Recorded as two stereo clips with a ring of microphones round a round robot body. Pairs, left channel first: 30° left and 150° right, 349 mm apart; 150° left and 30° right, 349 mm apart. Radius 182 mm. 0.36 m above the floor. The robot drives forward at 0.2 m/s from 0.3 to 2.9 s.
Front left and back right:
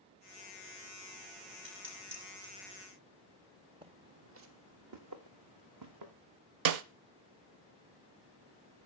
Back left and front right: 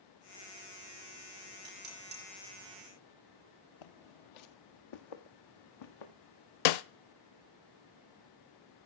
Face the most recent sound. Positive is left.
turn(degrees=170)